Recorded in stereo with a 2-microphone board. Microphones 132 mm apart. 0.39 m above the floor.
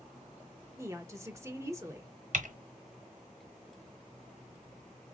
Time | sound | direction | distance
0.8 | a woman speaking | 20° right (ahead or behind) | 1.0 m
2.3 | typing on a keyboard | 65° right (ahead or behind) | 1.3 m